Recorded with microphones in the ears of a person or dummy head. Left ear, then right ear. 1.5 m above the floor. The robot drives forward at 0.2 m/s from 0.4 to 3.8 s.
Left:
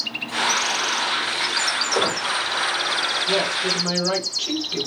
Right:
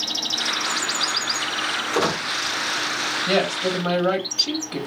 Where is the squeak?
20° left (ahead or behind), 1.7 m.